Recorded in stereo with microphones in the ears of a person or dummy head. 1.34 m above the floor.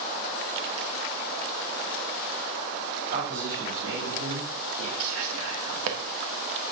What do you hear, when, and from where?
3.1 s a man speaking: 50° right (ahead or behind), 2.5 m; by 4.9 s 80° right, 3 m
5.0 s whispering: 75° right (ahead or behind), 1.6 m